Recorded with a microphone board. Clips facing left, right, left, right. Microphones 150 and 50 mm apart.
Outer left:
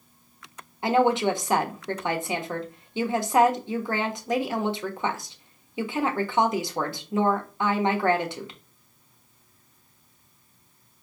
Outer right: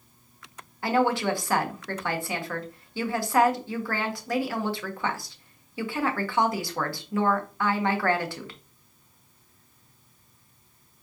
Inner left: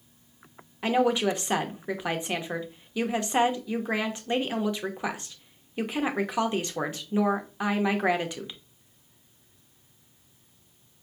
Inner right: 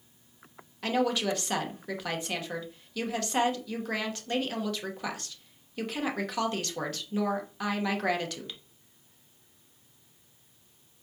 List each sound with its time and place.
0.8 s a woman speaking: 20° left (ahead or behind), 0.7 m